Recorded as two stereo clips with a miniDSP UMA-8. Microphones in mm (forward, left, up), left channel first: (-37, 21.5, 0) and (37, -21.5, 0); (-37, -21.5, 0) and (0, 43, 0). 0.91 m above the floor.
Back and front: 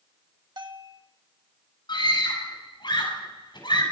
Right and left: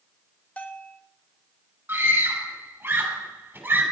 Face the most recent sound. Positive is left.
turn(degrees=125)